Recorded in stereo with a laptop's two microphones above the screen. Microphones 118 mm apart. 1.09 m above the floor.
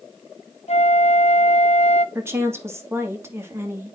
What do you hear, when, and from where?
0.7 s a flute: 65° left (ahead or behind), 0.6 m
2.1 s a woman speaking: 20° right (ahead or behind), 2.5 m